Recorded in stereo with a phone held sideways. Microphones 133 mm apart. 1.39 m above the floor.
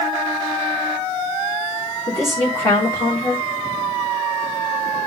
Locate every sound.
2.1 s a woman speaking: 20° left (ahead or behind), 4.5 m